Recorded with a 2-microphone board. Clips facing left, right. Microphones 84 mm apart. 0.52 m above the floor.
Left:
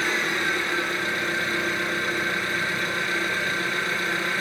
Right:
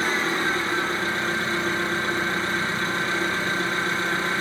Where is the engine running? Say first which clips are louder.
Right 2 dB; 30° right (ahead or behind), 4.5 m.